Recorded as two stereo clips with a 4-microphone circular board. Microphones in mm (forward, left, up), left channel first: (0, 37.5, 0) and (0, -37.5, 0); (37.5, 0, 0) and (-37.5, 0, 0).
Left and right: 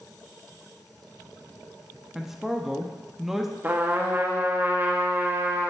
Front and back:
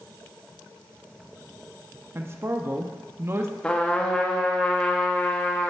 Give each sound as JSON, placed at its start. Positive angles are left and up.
{"t": 2.1, "sound": "a man speaking", "azimuth_deg": -175, "distance_m": 0.6}
{"t": 3.6, "sound": "a trumpet", "azimuth_deg": -60, "distance_m": 0.9}